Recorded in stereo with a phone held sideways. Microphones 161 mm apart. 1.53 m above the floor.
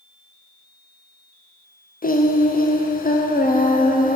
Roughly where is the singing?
Left.